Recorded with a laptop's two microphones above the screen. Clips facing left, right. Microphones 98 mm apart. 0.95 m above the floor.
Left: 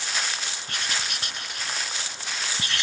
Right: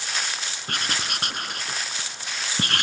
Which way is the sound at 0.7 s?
55° right (ahead or behind).